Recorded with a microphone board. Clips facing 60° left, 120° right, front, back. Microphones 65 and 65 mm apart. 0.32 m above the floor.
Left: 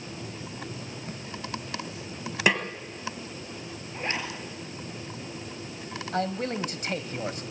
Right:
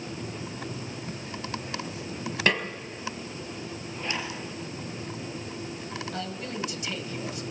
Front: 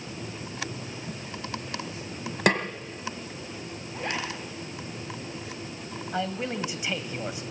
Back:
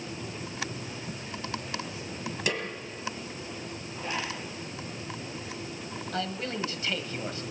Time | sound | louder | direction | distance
2.5 | a snare drum | left 1 dB, front 8 dB | 15° right | 1.7 m
3.9 | a zipper | left 2 dB, front 2 dB | 10° left | 3.5 m
6.1 | a man speaking | left 10 dB, front 3 dB | 70° left | 1.8 m